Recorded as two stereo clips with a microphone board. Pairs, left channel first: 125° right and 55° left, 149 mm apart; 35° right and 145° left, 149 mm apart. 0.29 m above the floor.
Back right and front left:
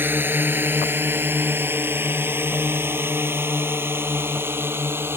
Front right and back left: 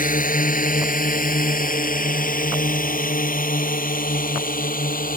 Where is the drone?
20° right.